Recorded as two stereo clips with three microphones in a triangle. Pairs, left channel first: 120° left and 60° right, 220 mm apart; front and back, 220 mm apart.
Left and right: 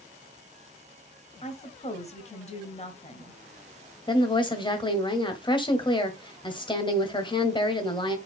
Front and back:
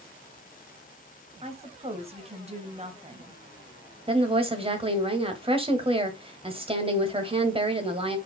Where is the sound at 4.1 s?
155° left, 1.4 m.